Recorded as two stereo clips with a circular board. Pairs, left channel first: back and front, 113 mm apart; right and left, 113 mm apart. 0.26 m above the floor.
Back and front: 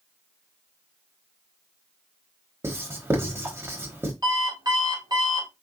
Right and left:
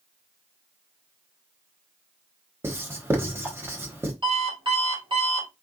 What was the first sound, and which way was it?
Writing, 45° left.